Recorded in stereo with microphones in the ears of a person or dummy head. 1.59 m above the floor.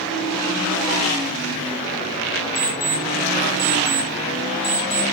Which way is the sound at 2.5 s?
20° left (ahead or behind).